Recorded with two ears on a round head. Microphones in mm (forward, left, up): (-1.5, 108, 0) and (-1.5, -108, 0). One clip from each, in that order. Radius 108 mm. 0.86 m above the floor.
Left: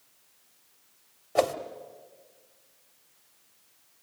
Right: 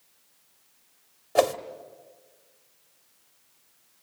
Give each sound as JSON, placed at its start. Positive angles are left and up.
{"t": 1.4, "sound": "a whoosh", "side_deg": -20, "distance_m": 1.0}